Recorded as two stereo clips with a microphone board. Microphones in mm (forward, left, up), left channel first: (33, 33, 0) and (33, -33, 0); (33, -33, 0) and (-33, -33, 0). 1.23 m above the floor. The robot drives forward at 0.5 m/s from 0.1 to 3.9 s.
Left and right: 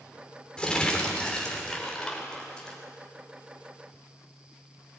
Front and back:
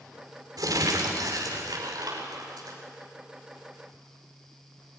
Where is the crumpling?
165° left, 3 m; by 2.8 s 170° left, 4.5 m.